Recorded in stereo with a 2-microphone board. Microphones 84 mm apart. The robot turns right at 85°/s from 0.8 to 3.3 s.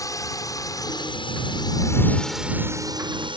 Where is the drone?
45° left (ahead or behind); by 3.4 s 75° right (ahead or behind).